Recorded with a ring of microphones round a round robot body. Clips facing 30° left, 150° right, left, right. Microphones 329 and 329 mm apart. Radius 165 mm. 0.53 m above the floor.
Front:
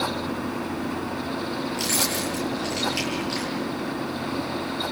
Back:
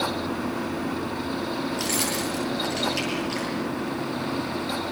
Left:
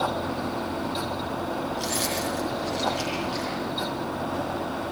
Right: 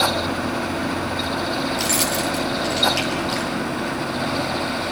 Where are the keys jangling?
55° right, 9 m.